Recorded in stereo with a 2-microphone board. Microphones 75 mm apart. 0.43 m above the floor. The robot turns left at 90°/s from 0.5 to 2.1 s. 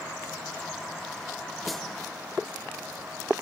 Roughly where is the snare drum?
Centre.